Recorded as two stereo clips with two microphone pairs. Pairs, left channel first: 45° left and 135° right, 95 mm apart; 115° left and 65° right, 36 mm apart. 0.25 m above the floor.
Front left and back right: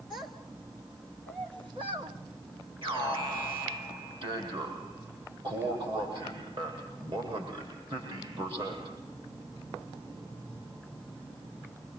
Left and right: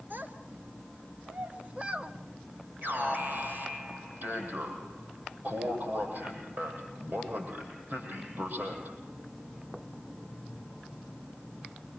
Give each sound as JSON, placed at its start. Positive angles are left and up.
{"t": 0.1, "sound": "a child speaking", "azimuth_deg": -100, "distance_m": 2.0}
{"t": 2.8, "sound": "an alarm", "azimuth_deg": -105, "distance_m": 7.5}